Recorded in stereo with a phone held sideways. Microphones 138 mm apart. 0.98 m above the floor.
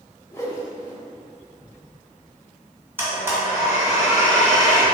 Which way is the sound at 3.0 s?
15° right (ahead or behind).